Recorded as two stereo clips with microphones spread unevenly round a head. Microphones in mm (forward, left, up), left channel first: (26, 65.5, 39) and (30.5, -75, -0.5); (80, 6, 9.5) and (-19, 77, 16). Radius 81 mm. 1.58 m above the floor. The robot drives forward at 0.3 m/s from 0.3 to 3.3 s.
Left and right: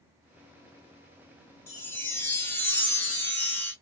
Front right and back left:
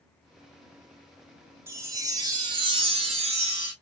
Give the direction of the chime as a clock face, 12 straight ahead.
9 o'clock.